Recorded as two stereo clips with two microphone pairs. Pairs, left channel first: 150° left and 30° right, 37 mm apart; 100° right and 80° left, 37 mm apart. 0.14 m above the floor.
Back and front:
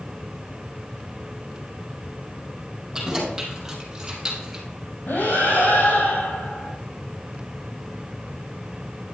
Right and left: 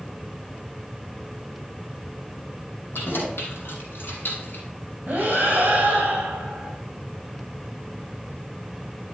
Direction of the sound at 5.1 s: 130° left.